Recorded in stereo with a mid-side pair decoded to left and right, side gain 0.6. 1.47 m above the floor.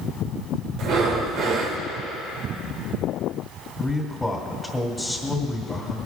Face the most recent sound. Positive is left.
turn(degrees=0)